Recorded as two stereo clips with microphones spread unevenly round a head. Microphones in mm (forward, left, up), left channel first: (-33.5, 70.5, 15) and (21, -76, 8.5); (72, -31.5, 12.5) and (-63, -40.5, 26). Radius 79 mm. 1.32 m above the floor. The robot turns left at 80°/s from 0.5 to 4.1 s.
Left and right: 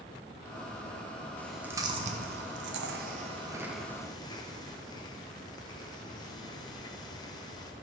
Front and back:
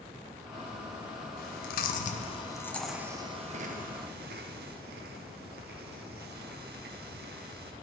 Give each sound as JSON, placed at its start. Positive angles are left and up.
{"t": 1.4, "sound": "chewing", "azimuth_deg": 35, "distance_m": 0.7}